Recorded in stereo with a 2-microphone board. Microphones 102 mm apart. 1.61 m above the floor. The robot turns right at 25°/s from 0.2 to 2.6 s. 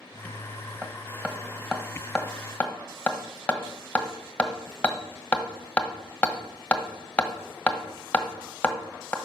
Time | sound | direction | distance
0.8 | hammering | 25° right (ahead or behind) | 1.2 m